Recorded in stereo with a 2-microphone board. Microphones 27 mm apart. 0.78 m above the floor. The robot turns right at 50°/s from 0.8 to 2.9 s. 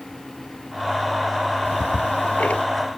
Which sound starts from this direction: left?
Ticking, at 1.6 s.